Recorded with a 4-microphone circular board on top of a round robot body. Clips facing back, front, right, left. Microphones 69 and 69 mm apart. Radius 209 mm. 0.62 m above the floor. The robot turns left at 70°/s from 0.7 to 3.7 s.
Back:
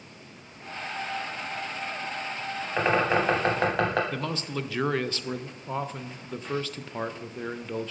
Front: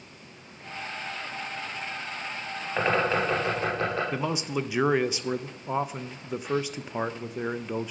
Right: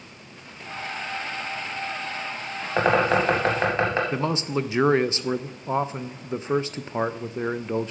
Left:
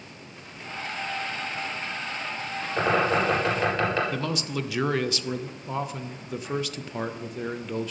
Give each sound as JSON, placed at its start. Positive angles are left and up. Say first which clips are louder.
{"t": 2.8, "sound": "a bird", "louder": "back 1 dB, right 3 dB", "azimuth_deg": -90, "distance_m": 0.6}
{"t": 4.1, "sound": "a man speaking", "louder": "front 3 dB, right 4 dB", "azimuth_deg": -60, "distance_m": 0.6}